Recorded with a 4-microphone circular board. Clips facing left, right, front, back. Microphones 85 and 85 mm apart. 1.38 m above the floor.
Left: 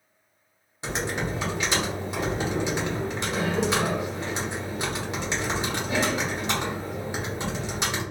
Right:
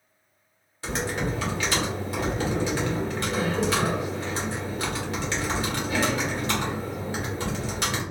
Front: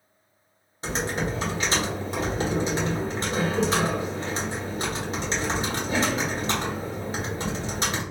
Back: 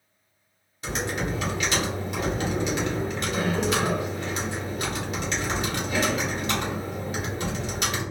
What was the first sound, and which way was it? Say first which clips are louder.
Typing on a keyboard: right 1 dB, front 1 dB; 35° left.